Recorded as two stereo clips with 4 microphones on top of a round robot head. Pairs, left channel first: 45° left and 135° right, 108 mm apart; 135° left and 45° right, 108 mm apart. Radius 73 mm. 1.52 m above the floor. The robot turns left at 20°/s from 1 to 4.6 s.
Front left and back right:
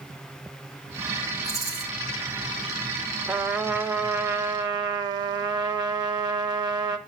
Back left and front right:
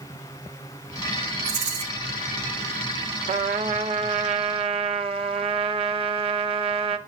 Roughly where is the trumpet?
Ahead right.